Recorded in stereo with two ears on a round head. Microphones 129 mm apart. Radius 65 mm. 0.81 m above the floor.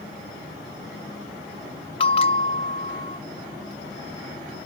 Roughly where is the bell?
Left.